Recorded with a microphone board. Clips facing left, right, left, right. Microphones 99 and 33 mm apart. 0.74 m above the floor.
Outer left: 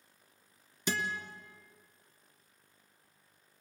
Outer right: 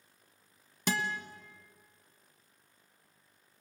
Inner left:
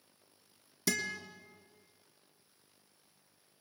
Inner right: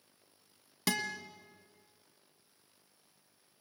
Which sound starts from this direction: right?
A guitar, at 0.9 s.